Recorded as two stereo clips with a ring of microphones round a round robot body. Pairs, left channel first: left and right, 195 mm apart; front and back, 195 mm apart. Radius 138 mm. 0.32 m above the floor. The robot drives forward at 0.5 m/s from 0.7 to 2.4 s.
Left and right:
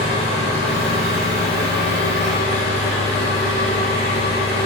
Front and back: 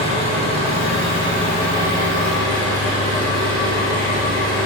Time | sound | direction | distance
0.0 | an engine running | 175° left | 5.5 m